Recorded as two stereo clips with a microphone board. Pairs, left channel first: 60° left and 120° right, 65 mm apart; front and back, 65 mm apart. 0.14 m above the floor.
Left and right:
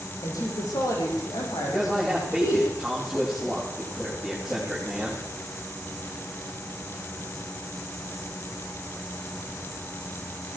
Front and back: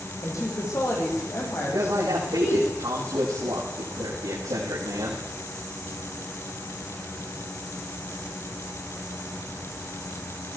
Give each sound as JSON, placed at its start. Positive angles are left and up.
{"t": 0.2, "sound": "a woman speaking", "azimuth_deg": 35, "distance_m": 8.5}
{"t": 1.7, "sound": "a man speaking", "azimuth_deg": 150, "distance_m": 9.5}